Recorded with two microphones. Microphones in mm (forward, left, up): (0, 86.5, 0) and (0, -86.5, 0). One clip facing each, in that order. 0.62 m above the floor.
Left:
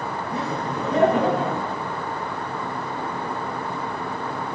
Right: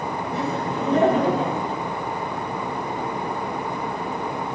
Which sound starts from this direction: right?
Laughter, at 0.3 s.